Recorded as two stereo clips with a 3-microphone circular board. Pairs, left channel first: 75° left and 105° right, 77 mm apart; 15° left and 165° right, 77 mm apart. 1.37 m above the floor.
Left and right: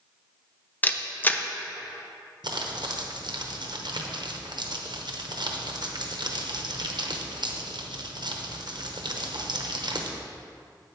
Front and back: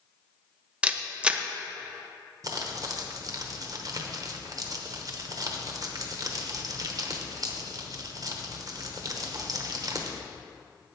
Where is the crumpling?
125° right, 0.9 m.